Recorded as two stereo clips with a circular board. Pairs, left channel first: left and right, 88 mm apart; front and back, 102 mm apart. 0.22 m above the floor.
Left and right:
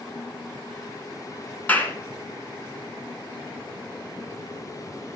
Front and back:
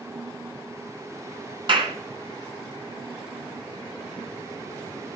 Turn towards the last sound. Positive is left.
turn(degrees=160)